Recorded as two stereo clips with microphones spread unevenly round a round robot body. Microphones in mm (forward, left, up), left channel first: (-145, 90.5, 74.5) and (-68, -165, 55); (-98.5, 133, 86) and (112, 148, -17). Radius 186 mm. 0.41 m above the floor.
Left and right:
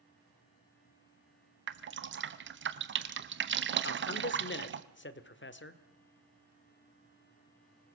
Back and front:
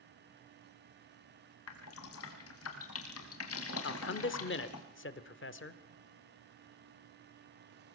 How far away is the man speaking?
About 1.6 m.